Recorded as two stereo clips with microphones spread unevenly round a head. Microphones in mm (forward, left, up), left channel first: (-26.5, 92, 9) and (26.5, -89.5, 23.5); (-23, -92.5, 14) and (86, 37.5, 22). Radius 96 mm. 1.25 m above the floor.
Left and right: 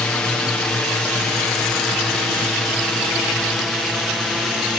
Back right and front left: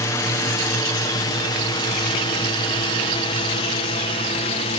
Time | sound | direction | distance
0.0 | a drone | straight behind | ?